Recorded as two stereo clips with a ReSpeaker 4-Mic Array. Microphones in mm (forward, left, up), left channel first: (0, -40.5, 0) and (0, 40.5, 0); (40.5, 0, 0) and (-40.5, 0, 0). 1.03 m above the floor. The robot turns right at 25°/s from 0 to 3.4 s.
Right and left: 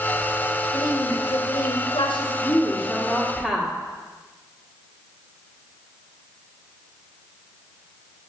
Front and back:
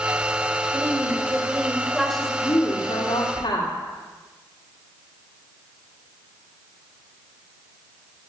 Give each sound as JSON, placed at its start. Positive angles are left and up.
{"t": 0.7, "sound": "a woman speaking", "azimuth_deg": -125, "distance_m": 1.3}
{"t": 2.4, "sound": "a woman speaking", "azimuth_deg": -30, "distance_m": 1.6}